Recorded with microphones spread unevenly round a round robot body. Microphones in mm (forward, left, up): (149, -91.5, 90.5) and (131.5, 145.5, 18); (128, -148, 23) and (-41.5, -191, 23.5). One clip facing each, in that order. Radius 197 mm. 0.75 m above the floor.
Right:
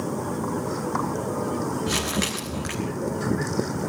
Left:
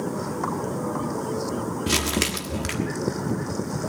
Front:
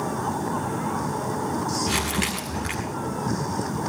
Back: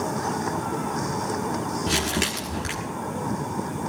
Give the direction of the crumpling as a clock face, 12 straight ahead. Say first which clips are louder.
Left 1 dB, back 1 dB; 7 o'clock.